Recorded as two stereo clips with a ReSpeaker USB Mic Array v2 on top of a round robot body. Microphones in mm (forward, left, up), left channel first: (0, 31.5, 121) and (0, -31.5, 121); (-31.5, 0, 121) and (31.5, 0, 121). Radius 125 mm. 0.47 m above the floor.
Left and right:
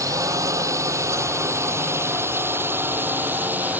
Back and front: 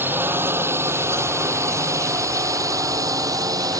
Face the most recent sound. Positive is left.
turn(degrees=-25)